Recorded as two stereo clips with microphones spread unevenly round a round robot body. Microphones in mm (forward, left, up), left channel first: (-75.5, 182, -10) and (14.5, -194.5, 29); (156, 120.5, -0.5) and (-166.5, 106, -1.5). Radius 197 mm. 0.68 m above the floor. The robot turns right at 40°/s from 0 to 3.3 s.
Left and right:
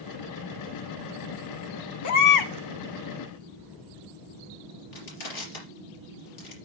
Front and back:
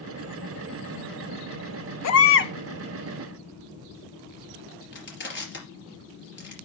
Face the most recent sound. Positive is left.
turn(degrees=60)